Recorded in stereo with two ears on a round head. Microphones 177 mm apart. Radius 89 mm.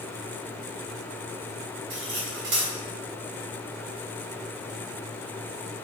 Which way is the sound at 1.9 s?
60° right (ahead or behind).